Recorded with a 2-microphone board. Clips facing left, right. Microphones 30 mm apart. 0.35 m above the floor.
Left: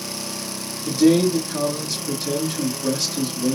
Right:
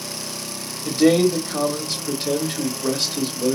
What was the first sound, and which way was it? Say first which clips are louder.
A man speaking: even; 40° right (ahead or behind).